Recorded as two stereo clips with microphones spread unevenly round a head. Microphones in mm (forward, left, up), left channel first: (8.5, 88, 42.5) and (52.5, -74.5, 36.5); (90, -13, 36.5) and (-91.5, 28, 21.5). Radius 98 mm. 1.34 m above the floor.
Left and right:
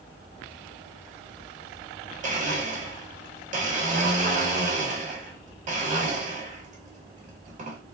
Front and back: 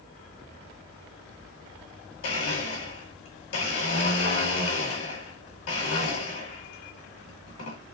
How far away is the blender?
About 1.5 m.